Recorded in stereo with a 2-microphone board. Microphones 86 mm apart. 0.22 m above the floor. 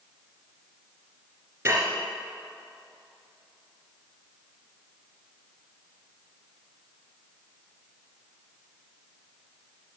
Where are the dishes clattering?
35° right (ahead or behind), 2.5 m.